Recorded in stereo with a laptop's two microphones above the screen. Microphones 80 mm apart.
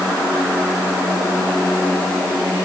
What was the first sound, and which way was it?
Only background noise.